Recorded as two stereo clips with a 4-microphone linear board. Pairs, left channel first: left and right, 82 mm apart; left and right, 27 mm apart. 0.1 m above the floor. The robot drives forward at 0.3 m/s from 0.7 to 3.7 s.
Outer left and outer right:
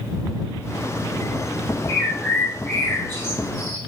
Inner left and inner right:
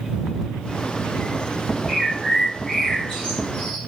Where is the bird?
25° left (ahead or behind), 1.6 m.